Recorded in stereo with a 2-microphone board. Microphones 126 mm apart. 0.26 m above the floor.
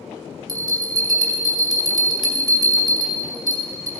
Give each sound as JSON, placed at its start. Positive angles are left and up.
{"t": 0.5, "sound": "a bell", "side_deg": -35, "distance_m": 2.0}